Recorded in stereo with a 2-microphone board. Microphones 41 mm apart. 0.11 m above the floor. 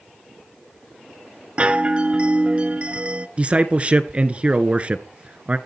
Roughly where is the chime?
Right.